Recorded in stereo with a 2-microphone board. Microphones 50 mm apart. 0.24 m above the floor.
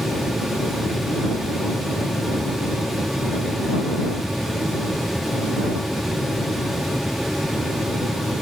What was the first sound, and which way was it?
Only background noise.